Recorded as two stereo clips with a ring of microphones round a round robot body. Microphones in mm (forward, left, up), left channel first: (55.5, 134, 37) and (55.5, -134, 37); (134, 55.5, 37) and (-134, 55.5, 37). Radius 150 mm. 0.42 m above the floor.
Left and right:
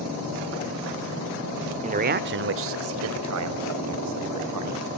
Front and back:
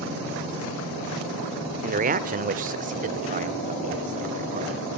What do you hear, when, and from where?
1.8 s a man speaking: 140° right, 1.1 m; by 5.0 s 115° right, 3.5 m